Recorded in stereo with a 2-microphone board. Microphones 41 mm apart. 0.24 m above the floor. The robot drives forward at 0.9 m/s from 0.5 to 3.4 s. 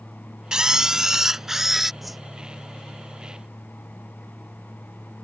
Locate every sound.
0.5 s a camera shutter: 20° right (ahead or behind); by 1.9 s 5° right (ahead or behind)
2.0 s a whoosh: 5° right (ahead or behind)